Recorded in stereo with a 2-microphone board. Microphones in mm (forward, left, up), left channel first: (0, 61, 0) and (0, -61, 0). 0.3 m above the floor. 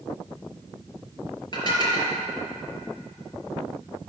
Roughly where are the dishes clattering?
Left.